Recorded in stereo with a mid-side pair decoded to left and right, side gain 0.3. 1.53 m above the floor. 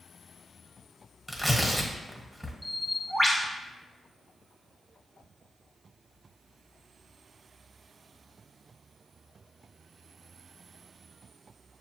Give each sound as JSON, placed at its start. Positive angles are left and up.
{"t": 1.3, "sound": "tearing paper", "azimuth_deg": 0, "distance_m": 1.4}
{"t": 2.6, "sound": "a bird", "azimuth_deg": 10, "distance_m": 1.3}